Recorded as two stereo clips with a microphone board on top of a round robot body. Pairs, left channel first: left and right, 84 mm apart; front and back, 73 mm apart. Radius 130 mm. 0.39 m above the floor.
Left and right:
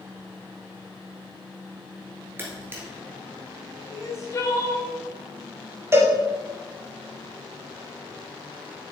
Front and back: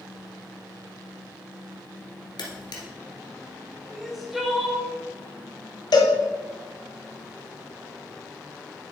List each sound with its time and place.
2.4 s a camera shutter: 25° right, 1.4 m
3.9 s crying: 90° left, 1.6 m
5.9 s a cowbell: 25° right, 0.9 m